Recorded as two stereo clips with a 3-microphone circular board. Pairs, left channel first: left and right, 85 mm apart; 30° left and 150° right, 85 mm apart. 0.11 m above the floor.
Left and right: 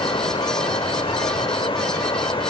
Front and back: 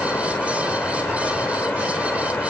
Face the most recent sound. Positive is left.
turn(degrees=95)